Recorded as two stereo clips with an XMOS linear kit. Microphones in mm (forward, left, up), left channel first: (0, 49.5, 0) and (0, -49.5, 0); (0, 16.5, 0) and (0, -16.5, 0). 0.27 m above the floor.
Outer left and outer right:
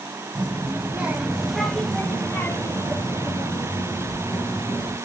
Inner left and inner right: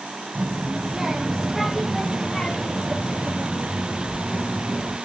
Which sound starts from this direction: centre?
A child speaking, at 0.3 s.